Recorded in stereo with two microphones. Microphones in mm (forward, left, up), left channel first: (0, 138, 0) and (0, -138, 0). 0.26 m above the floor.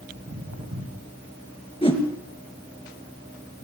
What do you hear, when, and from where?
0.1 s footsteps: 80° right, 8 m
1.8 s a whoosh: 20° left (ahead or behind), 2.5 m